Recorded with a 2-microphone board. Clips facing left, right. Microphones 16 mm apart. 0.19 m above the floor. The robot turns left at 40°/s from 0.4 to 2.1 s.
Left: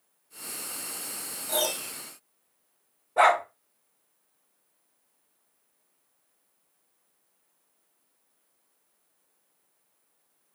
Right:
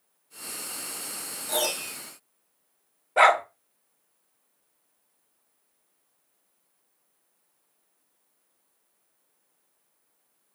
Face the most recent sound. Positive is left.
turn(degrees=-75)  # may be behind; listen again after turning